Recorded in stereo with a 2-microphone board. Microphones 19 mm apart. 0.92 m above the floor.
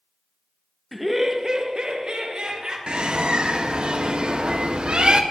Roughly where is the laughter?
Centre.